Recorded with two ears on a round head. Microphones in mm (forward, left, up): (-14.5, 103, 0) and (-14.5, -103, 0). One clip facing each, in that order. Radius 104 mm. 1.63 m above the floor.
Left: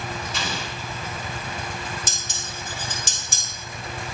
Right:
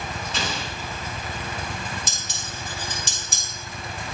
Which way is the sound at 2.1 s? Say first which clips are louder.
Even; 45° left (ahead or behind).